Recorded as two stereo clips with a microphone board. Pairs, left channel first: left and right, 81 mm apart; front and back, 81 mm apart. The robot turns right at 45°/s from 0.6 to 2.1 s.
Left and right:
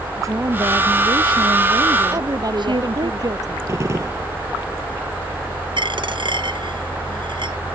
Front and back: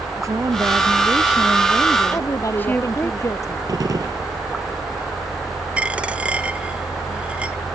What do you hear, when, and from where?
0.2 s a woman speaking: 135° right; by 3.1 s 70° right
2.1 s a woman speaking: 50° right
3.7 s a gunshot: 140° right
5.8 s a dropped coin: 105° right